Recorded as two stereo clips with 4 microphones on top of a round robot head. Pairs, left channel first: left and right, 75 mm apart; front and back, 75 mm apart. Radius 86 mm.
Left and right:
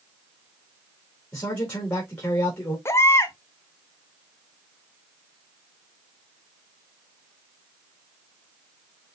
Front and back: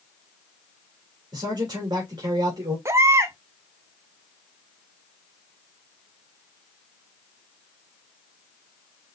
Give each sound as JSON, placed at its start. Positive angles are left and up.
{"t": 1.3, "sound": "a man speaking", "azimuth_deg": 145, "distance_m": 3.0}
{"t": 2.9, "sound": "a baby crying", "azimuth_deg": 135, "distance_m": 0.5}